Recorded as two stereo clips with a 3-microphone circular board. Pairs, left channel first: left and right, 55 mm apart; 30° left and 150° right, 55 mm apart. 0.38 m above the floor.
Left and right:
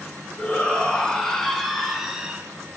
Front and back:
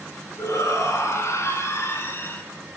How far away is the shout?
About 4.5 m.